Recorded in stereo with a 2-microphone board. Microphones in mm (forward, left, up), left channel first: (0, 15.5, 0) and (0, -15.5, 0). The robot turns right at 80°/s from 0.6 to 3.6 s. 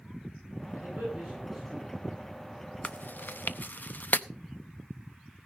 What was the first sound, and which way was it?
A man speaking, 75° right (ahead or behind).